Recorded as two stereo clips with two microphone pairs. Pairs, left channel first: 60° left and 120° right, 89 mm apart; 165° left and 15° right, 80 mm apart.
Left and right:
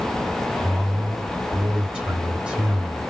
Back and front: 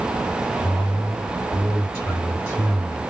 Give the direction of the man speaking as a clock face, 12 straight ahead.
6 o'clock.